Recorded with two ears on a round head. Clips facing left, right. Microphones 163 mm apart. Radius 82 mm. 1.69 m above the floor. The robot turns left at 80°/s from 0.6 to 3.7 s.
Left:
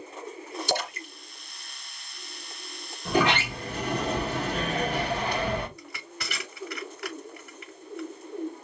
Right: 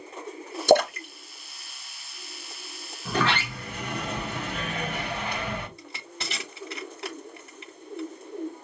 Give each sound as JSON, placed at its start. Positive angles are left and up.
{"t": 0.7, "sound": "a splash", "side_deg": -45, "distance_m": 0.7}
{"t": 3.0, "sound": "a sliding door", "azimuth_deg": 170, "distance_m": 1.1}
{"t": 5.8, "sound": "crushing", "side_deg": -25, "distance_m": 1.1}